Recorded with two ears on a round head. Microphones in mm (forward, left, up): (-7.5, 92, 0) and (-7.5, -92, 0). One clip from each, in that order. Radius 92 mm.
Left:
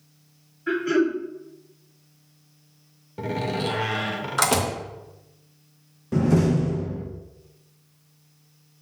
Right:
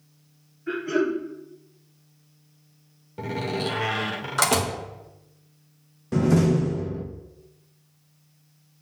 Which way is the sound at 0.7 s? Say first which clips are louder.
Left 3 dB; 75° left (ahead or behind).